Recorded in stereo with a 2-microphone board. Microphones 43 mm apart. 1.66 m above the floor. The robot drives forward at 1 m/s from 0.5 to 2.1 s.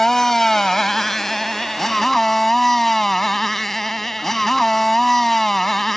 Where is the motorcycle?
10° left (ahead or behind); by 6.0 s 5° left (ahead or behind).